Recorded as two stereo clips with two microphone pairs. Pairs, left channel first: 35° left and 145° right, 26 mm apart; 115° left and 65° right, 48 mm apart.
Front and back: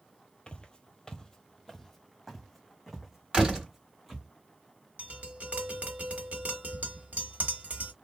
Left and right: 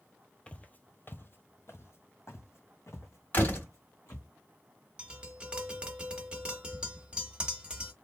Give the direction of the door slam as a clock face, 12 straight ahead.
7 o'clock.